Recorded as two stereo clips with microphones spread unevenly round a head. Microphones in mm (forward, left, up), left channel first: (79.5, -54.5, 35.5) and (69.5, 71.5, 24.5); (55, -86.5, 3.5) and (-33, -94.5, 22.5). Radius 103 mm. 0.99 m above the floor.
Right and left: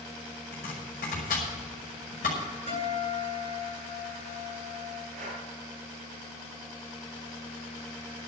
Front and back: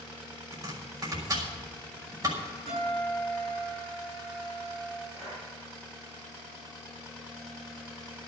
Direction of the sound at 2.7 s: 145° left.